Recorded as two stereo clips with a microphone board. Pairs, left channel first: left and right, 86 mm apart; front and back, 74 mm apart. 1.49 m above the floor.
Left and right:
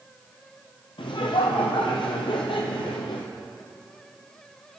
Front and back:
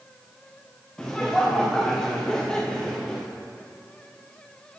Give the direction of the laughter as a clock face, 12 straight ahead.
9 o'clock.